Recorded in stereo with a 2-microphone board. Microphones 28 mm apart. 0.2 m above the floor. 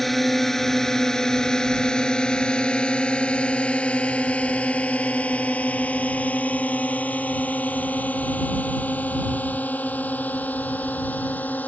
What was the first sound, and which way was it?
A drone, 5° left (ahead or behind).